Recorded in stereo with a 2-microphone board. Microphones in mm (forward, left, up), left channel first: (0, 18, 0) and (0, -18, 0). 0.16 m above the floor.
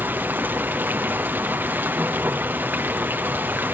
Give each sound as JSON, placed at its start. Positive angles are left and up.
{"t": 0.0, "sound": "running water", "side_deg": -75, "distance_m": 1.4}